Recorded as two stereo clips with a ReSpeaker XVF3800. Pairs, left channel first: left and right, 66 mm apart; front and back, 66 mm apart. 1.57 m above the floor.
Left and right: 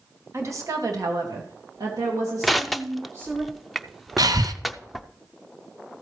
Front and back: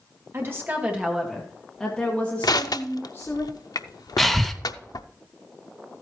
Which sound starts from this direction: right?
Breathing, at 4.2 s.